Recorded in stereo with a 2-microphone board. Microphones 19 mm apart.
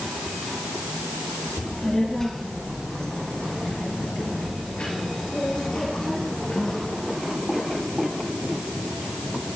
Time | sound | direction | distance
1.6 | a child speaking | 10° left (ahead or behind) | 3.5 m